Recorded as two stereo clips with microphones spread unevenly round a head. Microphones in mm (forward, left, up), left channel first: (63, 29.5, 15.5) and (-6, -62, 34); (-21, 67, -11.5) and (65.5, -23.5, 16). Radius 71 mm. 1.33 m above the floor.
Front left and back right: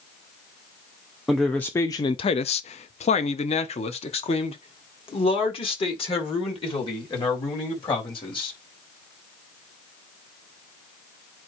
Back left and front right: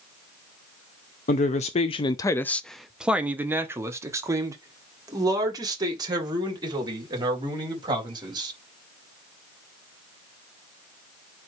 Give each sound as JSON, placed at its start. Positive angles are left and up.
{"t": 1.3, "sound": "a man speaking", "azimuth_deg": 140, "distance_m": 0.8}